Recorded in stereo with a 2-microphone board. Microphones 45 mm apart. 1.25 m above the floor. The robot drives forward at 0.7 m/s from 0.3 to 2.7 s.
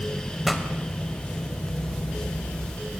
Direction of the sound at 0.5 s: Centre (ahead or behind).